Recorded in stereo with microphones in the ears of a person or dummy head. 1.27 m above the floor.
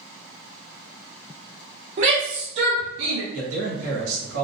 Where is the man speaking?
85° right, 1.2 m.